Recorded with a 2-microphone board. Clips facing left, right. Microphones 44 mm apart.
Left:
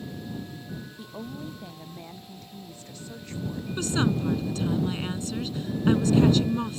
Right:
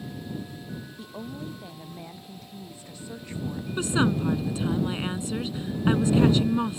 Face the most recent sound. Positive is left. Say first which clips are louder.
# right 2 dB
turn(degrees=-20)  # may be behind; listen again after turning